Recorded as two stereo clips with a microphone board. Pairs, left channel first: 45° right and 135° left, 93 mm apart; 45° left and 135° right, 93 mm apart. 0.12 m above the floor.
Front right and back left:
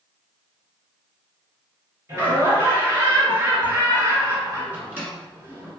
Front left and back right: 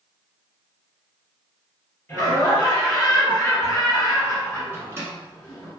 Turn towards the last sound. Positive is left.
turn(degrees=-170)